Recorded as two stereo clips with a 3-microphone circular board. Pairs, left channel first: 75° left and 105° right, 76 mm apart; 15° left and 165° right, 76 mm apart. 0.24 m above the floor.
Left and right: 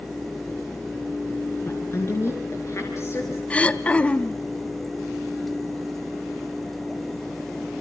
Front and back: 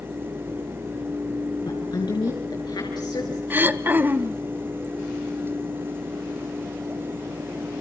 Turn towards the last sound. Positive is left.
turn(degrees=140)